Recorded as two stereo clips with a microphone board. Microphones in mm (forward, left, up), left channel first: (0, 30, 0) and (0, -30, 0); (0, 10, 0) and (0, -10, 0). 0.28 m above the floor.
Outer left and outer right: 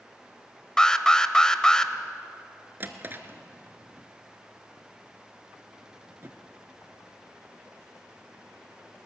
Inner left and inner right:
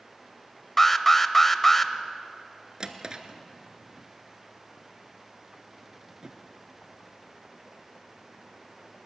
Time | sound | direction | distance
0.8 | an alarm | 15° left (ahead or behind) | 0.8 m
2.8 | a drawer | 35° right (ahead or behind) | 1.2 m